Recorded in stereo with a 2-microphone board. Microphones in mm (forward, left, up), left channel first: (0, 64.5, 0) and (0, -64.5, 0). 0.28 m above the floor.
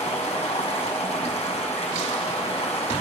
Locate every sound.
0.0 s running water: 55° left (ahead or behind), 1.7 m